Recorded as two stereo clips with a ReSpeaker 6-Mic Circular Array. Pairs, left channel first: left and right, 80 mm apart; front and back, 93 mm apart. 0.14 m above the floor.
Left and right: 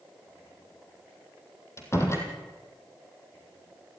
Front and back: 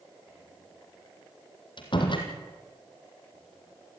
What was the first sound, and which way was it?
A door slam, 35° left.